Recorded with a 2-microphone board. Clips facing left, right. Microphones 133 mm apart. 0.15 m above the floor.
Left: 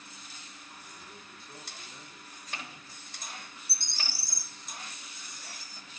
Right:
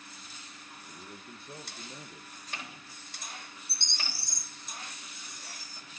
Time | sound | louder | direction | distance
0.9 | a man speaking | right 3 dB | 60° right (ahead or behind) | 2.5 m
3.7 | a bird | right 1 dB | 5° left (ahead or behind) | 0.7 m